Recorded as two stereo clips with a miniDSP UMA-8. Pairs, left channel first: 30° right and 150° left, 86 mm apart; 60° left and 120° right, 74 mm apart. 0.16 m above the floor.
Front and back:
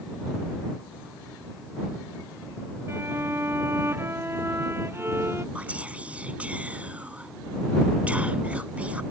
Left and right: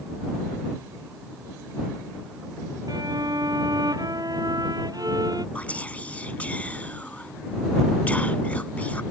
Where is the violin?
150° right.